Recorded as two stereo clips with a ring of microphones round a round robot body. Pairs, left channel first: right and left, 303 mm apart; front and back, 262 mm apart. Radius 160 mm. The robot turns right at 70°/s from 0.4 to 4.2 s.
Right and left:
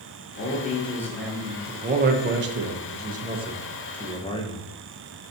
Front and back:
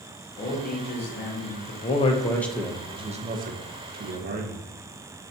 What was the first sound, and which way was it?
A man speaking, 55° right.